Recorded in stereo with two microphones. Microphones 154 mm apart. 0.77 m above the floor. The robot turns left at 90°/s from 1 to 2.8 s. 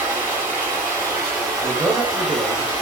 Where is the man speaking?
25° left, 0.6 m; by 2.7 s 75° right, 0.6 m.